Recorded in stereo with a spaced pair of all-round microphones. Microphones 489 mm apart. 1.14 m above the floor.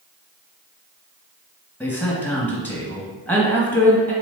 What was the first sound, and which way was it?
A man speaking, 5° left (ahead or behind).